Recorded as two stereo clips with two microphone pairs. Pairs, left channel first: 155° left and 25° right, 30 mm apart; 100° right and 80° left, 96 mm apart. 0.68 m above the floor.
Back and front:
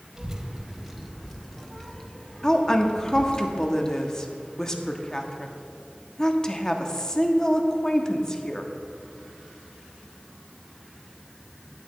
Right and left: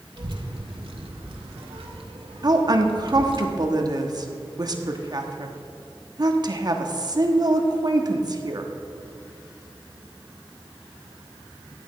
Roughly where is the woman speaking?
Left.